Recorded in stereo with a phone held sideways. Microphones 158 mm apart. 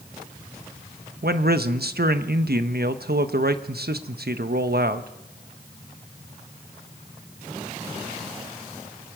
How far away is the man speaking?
About 1.1 m.